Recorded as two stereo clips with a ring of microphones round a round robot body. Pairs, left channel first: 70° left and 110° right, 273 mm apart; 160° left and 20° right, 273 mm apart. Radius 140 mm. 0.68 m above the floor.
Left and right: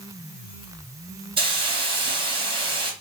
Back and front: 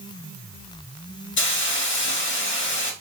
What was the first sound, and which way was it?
A hiss, straight behind.